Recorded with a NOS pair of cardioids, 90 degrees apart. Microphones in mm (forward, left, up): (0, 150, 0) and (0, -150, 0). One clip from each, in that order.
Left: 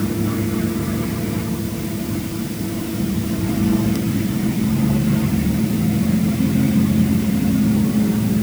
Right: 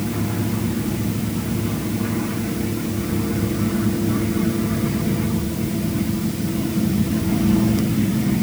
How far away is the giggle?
No giggle in this recording.